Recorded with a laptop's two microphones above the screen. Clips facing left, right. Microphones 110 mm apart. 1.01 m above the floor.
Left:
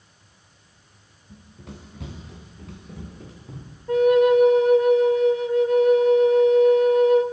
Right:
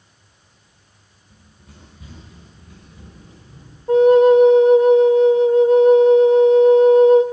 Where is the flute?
30° right (ahead or behind), 0.7 m.